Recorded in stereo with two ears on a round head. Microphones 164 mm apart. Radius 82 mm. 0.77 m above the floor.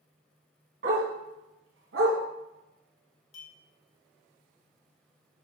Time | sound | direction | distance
0.8 | a dog barking | 60° right (ahead or behind) | 2.5 m
3.3 | a clink | 35° left (ahead or behind) | 1.5 m